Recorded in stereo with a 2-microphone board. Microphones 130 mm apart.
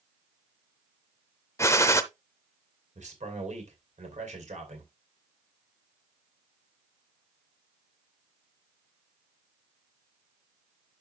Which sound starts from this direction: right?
A man speaking, at 3.0 s.